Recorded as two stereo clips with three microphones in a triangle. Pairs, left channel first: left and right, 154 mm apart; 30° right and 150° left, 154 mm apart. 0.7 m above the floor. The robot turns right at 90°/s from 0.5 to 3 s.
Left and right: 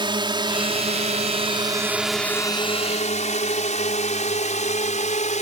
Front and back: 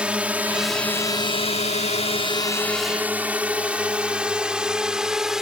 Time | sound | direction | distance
0.0 | a drone | 130° right | ?